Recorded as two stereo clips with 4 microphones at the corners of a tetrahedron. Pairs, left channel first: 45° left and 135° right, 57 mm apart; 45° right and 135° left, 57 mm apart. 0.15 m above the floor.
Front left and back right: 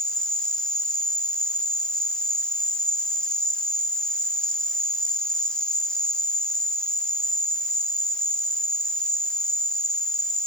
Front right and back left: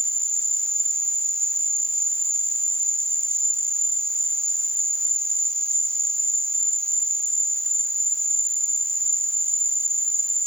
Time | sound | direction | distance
0.0 | an insect | 120° left | 1.7 m